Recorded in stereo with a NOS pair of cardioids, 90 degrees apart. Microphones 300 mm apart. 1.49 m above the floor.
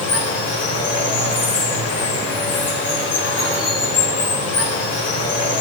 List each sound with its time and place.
0.0 s running water: 55° left, 2.5 m